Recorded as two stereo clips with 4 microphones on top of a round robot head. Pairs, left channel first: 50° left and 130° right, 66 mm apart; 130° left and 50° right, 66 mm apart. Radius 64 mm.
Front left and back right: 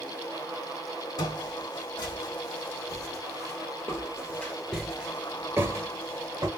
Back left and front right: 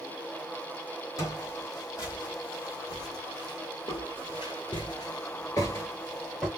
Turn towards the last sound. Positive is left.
turn(degrees=-150)